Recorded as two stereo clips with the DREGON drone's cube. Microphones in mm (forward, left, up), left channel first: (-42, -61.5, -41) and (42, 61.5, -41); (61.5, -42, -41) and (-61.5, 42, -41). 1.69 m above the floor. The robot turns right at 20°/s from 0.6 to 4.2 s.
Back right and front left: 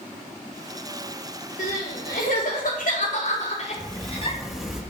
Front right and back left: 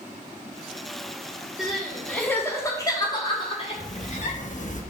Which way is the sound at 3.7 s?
40° right.